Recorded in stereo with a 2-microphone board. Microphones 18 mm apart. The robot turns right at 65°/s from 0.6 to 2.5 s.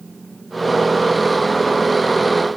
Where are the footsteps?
No footsteps in this recording.